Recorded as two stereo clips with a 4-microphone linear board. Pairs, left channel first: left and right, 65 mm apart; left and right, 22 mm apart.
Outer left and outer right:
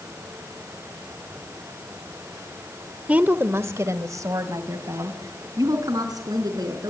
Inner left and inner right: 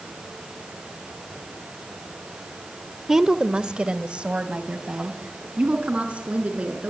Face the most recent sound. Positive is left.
turn(degrees=-80)